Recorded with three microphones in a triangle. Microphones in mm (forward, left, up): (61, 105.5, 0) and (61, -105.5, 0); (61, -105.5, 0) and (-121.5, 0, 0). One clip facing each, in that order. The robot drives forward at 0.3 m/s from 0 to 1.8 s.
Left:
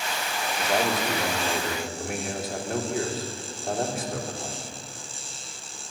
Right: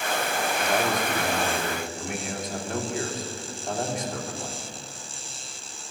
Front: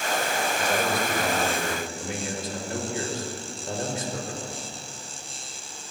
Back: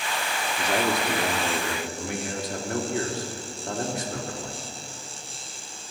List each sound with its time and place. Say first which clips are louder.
0.6 s a man speaking: left 2 dB, back 3 dB; 175° left, 2.5 m